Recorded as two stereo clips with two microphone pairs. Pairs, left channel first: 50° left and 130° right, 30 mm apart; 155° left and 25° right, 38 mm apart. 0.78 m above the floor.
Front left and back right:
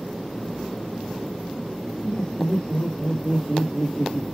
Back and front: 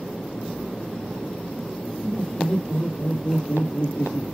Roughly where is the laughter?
Left.